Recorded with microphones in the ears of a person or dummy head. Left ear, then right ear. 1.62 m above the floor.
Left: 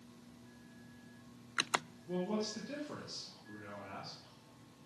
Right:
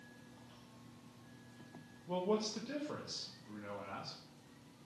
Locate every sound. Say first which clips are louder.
2.1 s a man speaking: right 2 dB; 55° right (ahead or behind), 1.7 m; by 4.2 s 35° right (ahead or behind), 2.5 m